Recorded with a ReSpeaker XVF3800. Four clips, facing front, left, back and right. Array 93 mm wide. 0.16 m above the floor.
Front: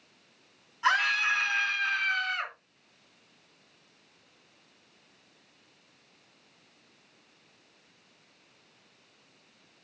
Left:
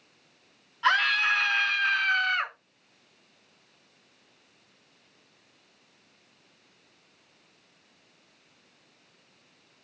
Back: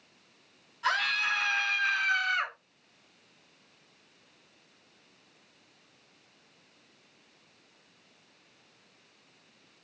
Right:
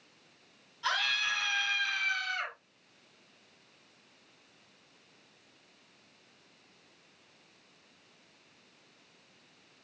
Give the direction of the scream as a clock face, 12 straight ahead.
10 o'clock.